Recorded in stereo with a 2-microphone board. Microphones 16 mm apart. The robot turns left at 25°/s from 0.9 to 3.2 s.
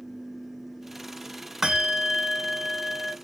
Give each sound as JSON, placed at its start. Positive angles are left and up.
{"t": 1.6, "sound": "a bell", "side_deg": -20, "distance_m": 1.2}